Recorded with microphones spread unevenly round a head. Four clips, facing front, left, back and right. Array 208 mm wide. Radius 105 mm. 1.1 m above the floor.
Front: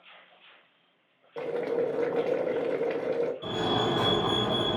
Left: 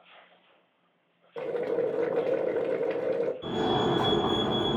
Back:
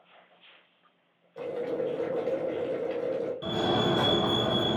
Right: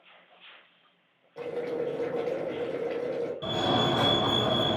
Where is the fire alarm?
125° right, 1.9 m.